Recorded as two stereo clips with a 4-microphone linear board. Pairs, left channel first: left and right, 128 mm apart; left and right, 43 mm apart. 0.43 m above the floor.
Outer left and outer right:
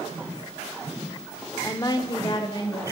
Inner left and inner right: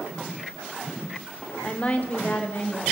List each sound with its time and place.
1.6 s a woman speaking: 20° left (ahead or behind), 0.7 m; by 2.8 s 40° left (ahead or behind), 1.6 m